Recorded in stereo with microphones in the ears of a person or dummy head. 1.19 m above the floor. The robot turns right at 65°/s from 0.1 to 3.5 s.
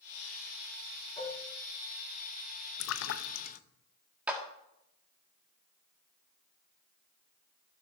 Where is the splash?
70° left (ahead or behind), 0.6 m; by 3.6 s 40° left (ahead or behind), 0.6 m.